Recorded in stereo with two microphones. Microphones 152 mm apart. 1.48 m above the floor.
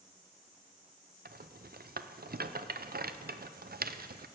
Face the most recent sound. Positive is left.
turn(degrees=-85)